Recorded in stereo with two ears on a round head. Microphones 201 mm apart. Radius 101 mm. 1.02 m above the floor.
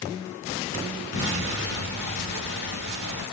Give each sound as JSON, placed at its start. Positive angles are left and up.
{"t": 1.1, "sound": "an explosion", "side_deg": 50, "distance_m": 2.0}